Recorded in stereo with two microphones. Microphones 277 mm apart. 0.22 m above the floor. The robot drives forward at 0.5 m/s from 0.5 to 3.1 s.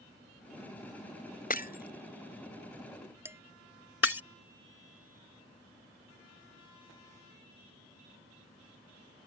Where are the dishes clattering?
10° right (ahead or behind).